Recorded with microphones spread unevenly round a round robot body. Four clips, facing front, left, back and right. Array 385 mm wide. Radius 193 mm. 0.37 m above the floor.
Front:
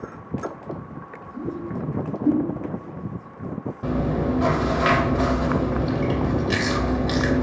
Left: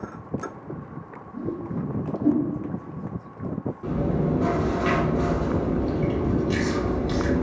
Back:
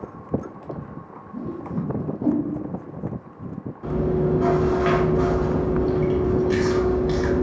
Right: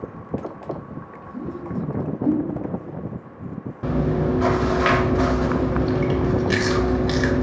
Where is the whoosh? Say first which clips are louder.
Right 1 dB, even; 165° right, 1.5 m.